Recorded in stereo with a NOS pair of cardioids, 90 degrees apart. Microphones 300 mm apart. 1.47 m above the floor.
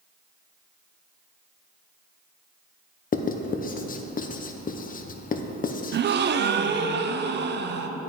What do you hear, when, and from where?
3.1 s writing: 30° left, 0.7 m
5.9 s a gasp: 35° right, 0.6 m